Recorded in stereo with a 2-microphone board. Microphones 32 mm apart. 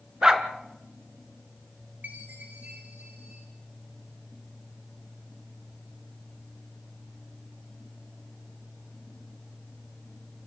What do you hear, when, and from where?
0.2 s a dog barking: 25° right (ahead or behind), 1.7 m
2.0 s a chime: 75° right (ahead or behind), 6 m